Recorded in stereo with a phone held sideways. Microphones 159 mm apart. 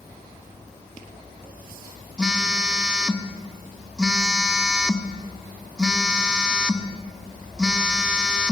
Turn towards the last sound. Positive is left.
turn(degrees=-5)  # may be behind; listen again after turning